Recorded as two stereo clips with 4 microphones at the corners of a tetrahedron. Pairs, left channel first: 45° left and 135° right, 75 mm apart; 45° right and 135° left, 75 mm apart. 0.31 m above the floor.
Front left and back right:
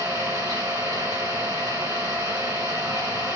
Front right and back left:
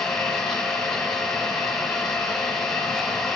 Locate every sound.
0.0 s an engine running: 125° right, 2 m